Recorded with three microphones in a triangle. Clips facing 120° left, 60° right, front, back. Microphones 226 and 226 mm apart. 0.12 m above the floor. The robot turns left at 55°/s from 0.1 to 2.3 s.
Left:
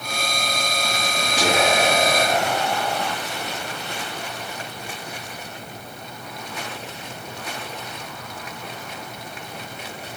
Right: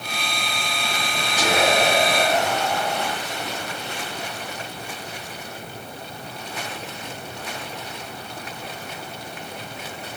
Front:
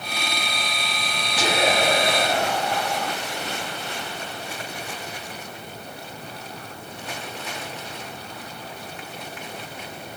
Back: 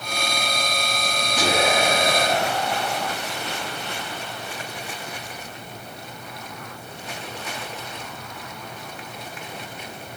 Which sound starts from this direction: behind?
Whispering, at 1.4 s.